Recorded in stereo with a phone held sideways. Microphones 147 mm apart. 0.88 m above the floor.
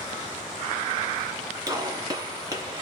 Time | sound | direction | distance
1.7 | a gunshot | 25° right (ahead or behind) | 1.9 m